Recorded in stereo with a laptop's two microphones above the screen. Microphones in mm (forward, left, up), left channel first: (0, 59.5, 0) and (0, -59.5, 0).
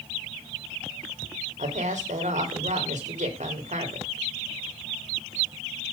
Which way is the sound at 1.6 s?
75° right (ahead or behind).